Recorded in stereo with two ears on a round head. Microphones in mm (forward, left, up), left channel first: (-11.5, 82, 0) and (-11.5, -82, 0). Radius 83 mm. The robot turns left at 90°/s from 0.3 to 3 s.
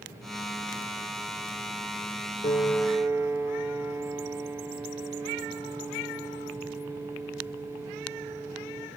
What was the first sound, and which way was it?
A piano, 35° left.